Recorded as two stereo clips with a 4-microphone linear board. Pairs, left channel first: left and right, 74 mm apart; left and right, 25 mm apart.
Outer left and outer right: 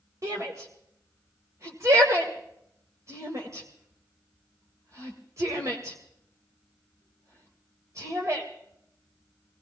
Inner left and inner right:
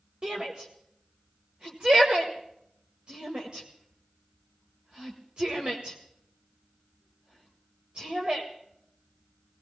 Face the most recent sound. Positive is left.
turn(degrees=-45)  # may be behind; listen again after turning